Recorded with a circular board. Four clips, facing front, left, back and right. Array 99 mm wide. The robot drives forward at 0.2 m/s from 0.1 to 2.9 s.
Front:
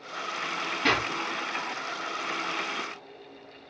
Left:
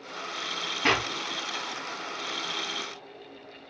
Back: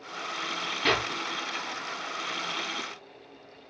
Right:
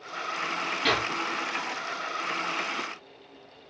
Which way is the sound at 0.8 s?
75° left.